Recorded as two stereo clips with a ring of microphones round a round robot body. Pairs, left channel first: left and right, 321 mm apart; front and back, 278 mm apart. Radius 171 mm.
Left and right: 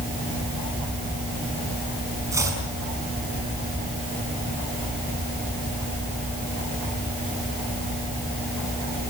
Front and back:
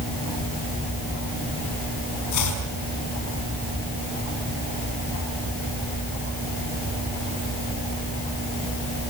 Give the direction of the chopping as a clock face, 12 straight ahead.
12 o'clock.